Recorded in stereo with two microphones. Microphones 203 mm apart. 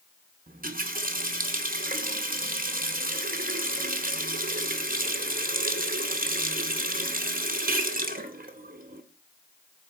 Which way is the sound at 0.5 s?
40° right (ahead or behind).